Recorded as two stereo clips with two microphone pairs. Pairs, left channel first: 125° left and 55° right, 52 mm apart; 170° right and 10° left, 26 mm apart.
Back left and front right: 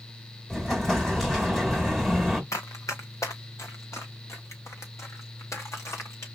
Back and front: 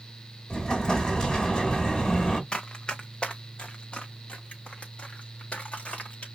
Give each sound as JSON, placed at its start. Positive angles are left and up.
{"t": 0.5, "sound": "an explosion", "azimuth_deg": -165, "distance_m": 1.8}
{"t": 2.5, "sound": "running footsteps", "azimuth_deg": 130, "distance_m": 1.5}